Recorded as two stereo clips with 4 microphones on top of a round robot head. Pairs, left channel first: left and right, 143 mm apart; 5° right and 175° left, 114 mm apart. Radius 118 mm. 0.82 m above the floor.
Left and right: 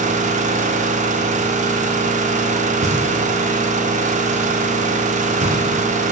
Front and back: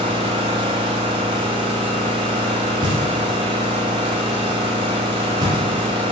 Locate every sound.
0.0 s an engine running: 125° right, 0.7 m
2.8 s knocking: 125° right, 1.7 m